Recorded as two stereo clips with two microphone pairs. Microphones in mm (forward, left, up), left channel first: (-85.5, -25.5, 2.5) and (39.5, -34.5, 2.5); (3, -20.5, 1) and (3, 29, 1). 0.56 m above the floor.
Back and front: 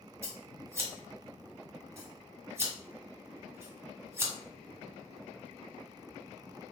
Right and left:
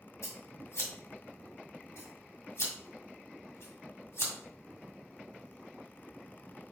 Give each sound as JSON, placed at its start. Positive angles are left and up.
{"t": 0.2, "sound": "scissors", "azimuth_deg": -75, "distance_m": 1.6}